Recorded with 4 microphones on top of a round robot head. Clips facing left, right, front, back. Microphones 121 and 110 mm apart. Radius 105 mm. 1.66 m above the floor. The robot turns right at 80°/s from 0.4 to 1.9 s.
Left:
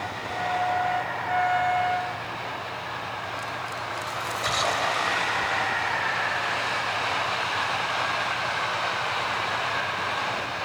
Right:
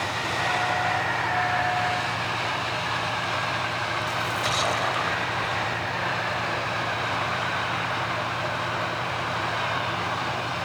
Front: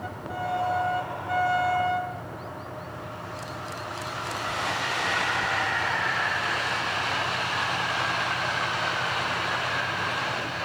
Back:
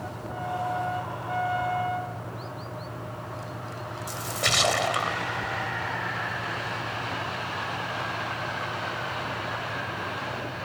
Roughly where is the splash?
Behind.